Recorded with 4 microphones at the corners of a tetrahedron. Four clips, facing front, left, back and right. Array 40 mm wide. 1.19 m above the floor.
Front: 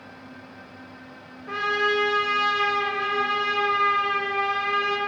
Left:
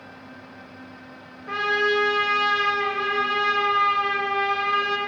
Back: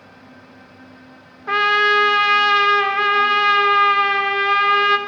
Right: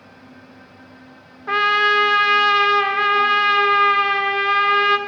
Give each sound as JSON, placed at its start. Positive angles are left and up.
{"t": 1.5, "sound": "a trumpet", "azimuth_deg": -140, "distance_m": 1.0}